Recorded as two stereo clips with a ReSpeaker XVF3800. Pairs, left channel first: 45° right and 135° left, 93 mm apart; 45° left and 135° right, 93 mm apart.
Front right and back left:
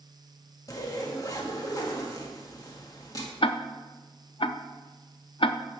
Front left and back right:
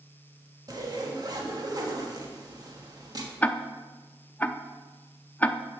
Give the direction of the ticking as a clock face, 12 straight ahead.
1 o'clock.